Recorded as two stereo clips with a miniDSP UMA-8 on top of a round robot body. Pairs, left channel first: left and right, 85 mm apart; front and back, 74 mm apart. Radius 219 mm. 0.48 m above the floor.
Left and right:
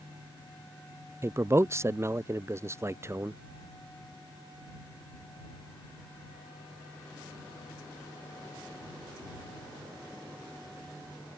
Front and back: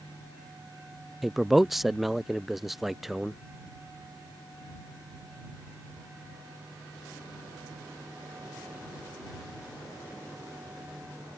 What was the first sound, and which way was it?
A man speaking, 95° right.